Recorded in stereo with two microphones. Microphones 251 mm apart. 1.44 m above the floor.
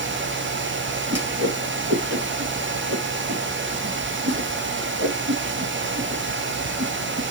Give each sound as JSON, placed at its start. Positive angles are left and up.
{"t": 1.1, "sound": "a whoosh", "side_deg": -80, "distance_m": 3.0}